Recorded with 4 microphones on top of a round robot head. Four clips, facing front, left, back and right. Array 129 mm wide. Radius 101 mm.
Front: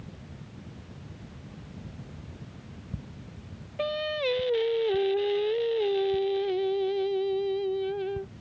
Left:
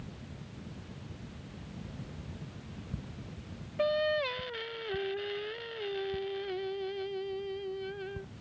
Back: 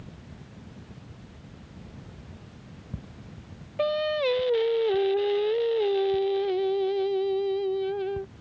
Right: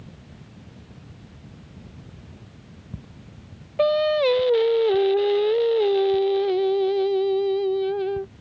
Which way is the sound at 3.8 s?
90° right.